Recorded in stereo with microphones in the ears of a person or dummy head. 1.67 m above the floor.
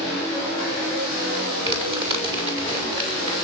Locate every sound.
1.6 s crumpling: 35° right (ahead or behind), 6 m